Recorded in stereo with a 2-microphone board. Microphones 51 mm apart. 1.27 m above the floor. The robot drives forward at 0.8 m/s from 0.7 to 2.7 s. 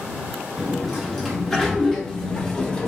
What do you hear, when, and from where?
0.6 s a sliding door: 5° left (ahead or behind), 1.7 m; by 2.9 s 15° left (ahead or behind), 0.8 m